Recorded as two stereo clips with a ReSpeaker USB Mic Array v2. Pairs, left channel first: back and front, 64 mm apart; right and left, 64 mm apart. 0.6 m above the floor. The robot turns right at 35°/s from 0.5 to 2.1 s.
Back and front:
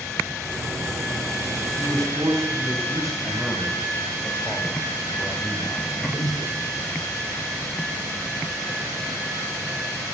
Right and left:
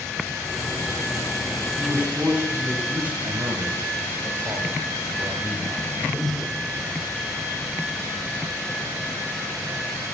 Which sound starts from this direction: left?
A man speaking, at 3.2 s.